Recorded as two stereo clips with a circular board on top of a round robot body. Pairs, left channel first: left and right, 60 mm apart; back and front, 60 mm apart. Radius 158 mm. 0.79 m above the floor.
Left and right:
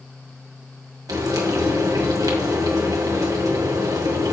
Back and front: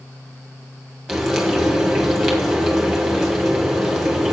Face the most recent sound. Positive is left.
turn(degrees=-90)